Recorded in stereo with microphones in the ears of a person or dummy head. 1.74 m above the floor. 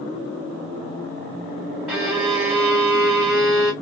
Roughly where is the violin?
Centre.